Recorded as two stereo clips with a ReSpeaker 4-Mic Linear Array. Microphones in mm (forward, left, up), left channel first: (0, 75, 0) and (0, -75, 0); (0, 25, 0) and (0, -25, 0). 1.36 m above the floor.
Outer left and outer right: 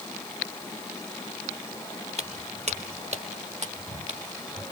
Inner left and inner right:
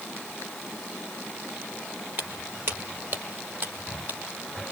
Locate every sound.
2.2 s footsteps: 50° right (ahead or behind), 2 m